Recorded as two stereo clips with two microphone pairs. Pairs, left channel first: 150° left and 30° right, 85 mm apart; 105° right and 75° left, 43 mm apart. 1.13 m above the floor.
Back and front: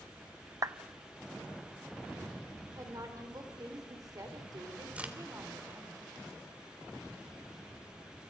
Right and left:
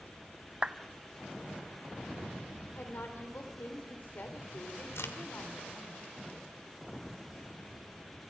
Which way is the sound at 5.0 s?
105° right.